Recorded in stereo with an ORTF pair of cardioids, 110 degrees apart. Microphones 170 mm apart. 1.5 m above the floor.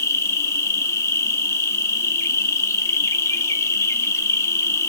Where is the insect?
15° left, 2.0 m.